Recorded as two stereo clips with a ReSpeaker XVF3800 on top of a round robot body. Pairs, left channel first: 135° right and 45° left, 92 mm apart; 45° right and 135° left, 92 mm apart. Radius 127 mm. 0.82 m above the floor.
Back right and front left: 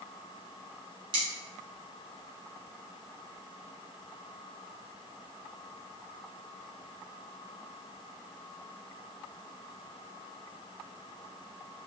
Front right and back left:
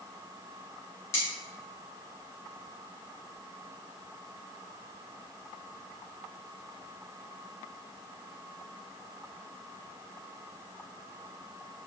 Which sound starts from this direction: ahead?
Cutlery clinking, at 1.1 s.